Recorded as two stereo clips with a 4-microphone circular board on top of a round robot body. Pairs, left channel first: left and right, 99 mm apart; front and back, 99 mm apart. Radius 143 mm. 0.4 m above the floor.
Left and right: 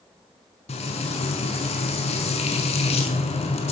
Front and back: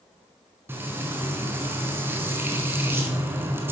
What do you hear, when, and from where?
0.7 s frying: 110° left, 1.0 m